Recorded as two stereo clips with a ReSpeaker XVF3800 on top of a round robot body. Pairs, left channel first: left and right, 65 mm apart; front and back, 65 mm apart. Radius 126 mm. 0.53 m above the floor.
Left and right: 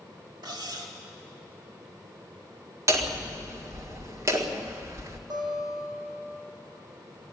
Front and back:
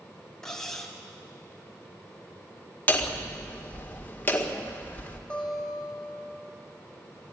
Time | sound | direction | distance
0.4 | cutlery clinking | 80° right | 2.5 m
2.9 | hammering | 60° right | 2.0 m
5.3 | a guitar | 80° right | 7 m